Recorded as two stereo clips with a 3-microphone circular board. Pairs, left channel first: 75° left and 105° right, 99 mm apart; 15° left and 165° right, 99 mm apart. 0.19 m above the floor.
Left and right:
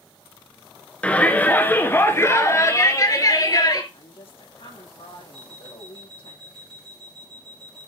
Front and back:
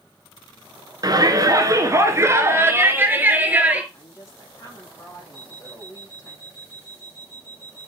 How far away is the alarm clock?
About 5.5 m.